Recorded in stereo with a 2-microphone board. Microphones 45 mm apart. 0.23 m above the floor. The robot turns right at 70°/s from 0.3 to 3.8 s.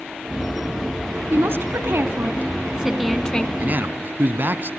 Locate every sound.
1.3 s a woman speaking: 120° right, 2.5 m; by 3.5 s 30° left, 2.5 m
3.6 s a man speaking: 35° right (ahead or behind), 2.0 m; by 4.7 s 45° right (ahead or behind), 2.0 m